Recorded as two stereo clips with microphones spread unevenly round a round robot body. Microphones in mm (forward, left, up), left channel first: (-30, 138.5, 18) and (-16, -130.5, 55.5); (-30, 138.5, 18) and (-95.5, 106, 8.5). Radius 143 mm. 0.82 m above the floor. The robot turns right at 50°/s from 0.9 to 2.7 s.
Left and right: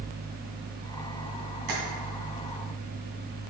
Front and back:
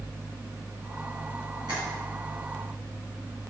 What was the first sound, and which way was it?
Tapping, 85° right.